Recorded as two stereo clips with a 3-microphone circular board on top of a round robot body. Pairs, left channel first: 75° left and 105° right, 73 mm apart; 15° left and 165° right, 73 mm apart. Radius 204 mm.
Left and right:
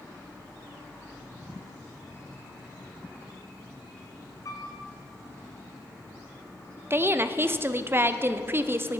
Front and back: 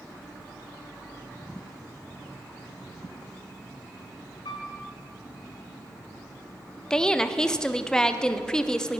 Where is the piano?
30° left, 1.2 m.